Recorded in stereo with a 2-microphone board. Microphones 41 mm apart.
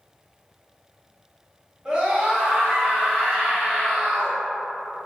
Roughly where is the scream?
Right.